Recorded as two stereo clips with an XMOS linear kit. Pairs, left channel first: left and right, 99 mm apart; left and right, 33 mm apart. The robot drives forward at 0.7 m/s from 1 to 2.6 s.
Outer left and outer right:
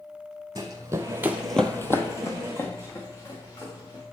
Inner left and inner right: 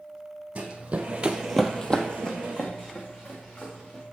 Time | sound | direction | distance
0.6 | running footsteps | 40° right (ahead or behind) | 1.6 m